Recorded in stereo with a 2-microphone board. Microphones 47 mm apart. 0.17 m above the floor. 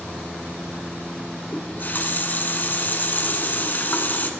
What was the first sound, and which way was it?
A running tap, 40° left (ahead or behind).